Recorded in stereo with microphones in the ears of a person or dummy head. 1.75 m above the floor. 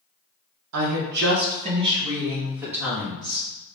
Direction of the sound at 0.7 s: 80° right.